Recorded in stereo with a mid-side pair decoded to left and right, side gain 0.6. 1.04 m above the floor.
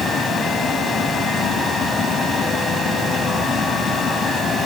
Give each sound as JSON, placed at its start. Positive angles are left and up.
{"t": 0.0, "sound": "a fan", "azimuth_deg": 30, "distance_m": 3.0}